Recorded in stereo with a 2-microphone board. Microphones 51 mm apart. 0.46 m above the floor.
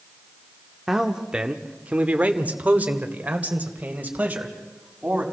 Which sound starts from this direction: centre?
A man speaking, at 0.9 s.